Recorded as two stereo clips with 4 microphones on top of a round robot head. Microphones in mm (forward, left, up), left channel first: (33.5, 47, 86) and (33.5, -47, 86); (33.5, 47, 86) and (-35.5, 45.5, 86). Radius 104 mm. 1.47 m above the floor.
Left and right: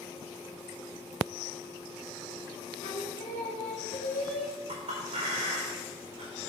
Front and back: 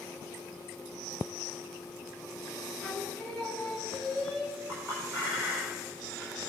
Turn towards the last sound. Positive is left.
turn(degrees=-105)